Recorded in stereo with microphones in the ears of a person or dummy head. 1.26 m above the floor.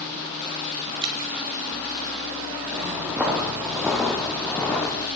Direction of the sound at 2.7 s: 10° right (ahead or behind).